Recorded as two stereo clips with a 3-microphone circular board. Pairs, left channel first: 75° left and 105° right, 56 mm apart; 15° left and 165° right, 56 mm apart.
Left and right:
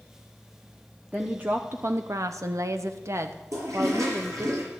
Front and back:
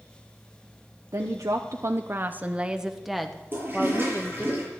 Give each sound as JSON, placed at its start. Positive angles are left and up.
{"t": 1.1, "sound": "a woman speaking", "azimuth_deg": -170, "distance_m": 1.1}
{"t": 3.5, "sound": "a toilet flushing", "azimuth_deg": -110, "distance_m": 7.0}